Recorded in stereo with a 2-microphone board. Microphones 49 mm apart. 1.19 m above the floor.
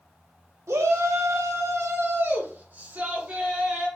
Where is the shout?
75° right (ahead or behind), 0.9 m; by 3.9 s 20° right (ahead or behind), 1.6 m.